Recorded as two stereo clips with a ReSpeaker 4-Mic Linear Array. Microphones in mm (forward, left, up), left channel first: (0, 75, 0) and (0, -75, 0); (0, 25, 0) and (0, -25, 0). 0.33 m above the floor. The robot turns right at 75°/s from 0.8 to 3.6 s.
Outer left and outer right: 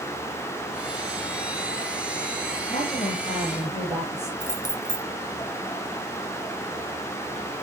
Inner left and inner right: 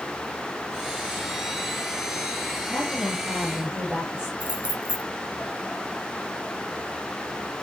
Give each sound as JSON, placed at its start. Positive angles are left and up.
{"t": 2.7, "sound": "a woman speaking", "azimuth_deg": 135, "distance_m": 8.0}
{"t": 4.4, "sound": "keys jangling", "side_deg": -30, "distance_m": 1.0}